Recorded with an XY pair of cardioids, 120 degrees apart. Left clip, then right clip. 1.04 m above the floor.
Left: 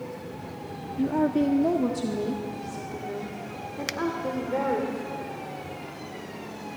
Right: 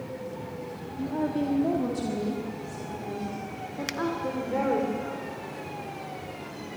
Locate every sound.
1.0 s a woman speaking: 35° left, 1.4 m; by 4.9 s straight ahead, 3 m
3.9 s a finger snap: 10° left, 0.6 m